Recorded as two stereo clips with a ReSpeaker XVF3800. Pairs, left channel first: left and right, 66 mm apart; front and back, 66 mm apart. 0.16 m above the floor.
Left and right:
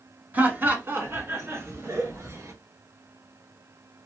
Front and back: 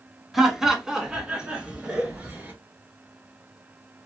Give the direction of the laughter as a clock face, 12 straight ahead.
3 o'clock.